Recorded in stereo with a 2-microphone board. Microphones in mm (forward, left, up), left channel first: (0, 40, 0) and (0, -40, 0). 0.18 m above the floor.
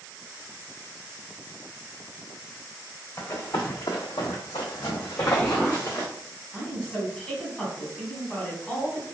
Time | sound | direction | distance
3.2 | running footsteps | 40° left (ahead or behind) | 1.0 m
5.2 | an explosion | 20° left (ahead or behind) | 0.9 m
6.5 | a woman speaking | 15° left (ahead or behind) | 1.1 m